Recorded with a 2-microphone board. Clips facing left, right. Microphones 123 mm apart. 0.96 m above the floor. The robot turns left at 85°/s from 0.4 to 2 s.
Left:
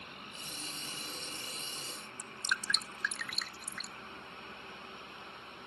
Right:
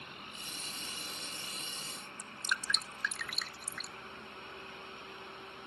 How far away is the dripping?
About 0.6 m.